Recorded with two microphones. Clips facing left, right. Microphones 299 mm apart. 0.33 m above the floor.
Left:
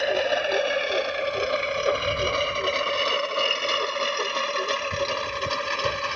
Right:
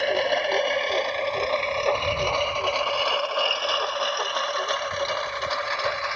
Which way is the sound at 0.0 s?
Centre (ahead or behind).